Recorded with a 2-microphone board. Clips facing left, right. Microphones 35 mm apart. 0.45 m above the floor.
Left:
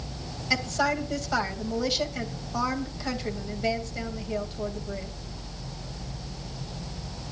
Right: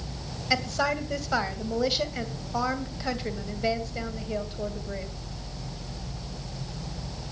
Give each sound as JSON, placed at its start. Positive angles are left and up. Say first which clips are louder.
{"t": 0.5, "sound": "a woman speaking", "louder": "even", "side_deg": -10, "distance_m": 2.5}